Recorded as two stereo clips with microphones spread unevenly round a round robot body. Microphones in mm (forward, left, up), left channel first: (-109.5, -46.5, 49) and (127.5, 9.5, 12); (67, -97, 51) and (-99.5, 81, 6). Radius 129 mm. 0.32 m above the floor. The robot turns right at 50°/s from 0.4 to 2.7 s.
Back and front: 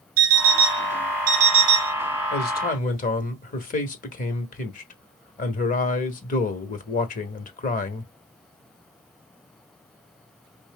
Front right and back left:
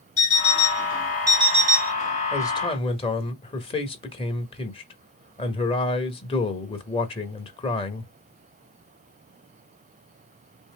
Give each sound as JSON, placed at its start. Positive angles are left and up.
{"t": 0.2, "sound": "an alarm clock", "azimuth_deg": 15, "distance_m": 1.6}
{"t": 2.3, "sound": "a man speaking", "azimuth_deg": -135, "distance_m": 1.2}